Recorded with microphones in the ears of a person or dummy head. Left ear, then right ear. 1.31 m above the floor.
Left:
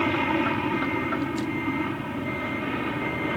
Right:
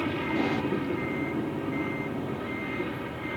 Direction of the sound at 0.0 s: 30° left (ahead or behind).